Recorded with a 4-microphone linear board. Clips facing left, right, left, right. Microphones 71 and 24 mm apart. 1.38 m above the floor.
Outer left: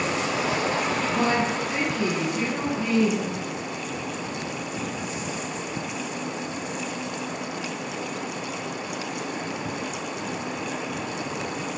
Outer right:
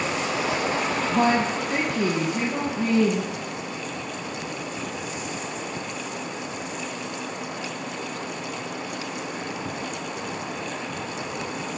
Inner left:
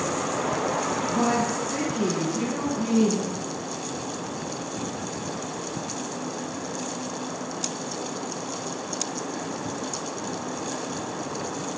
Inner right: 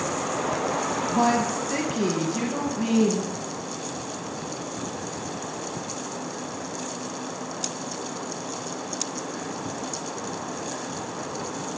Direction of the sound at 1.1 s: 40° right (ahead or behind).